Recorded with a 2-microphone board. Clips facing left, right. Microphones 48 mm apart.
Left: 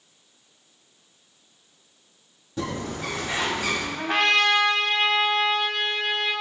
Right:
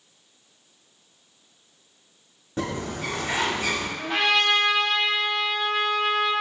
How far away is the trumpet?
About 0.8 m.